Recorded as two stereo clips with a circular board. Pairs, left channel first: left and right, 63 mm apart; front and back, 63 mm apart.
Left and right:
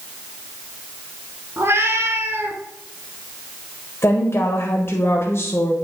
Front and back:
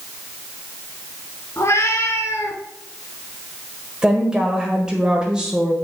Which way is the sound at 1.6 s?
45° right.